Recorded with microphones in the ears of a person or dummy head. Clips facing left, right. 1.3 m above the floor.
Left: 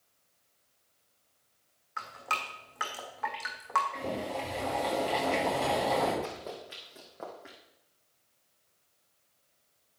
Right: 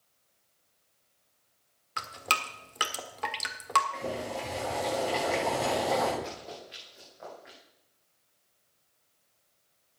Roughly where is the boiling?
Centre.